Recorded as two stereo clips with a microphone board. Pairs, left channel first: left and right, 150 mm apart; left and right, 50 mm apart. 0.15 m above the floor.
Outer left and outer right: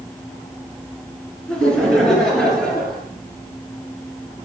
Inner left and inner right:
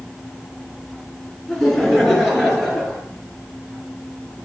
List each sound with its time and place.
1.5 s laughter: 5° left (ahead or behind), 1.7 m